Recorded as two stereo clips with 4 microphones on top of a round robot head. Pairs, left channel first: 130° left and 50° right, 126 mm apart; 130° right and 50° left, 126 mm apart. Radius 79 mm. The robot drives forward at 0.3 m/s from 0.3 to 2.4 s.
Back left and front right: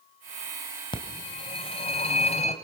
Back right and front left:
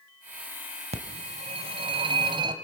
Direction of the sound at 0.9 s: 80° left.